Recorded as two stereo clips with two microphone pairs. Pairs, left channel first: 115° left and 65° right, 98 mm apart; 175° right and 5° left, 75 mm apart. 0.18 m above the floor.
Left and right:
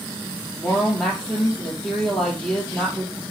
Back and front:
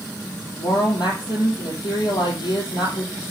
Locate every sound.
0.6 s a woman speaking: 165° right, 4 m